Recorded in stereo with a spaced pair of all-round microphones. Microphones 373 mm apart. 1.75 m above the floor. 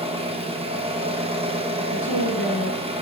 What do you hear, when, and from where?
0.0 s an engine running: 15° right (ahead or behind), 1.0 m
1.9 s a woman speaking: 70° left (ahead or behind), 2.0 m